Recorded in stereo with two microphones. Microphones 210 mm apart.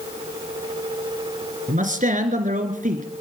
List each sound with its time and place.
1.7 s a man speaking: 40° right (ahead or behind), 2 m